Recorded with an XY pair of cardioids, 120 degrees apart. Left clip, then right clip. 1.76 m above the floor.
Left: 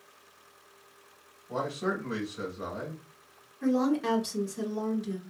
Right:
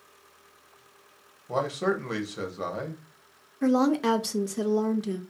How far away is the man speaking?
About 1.0 m.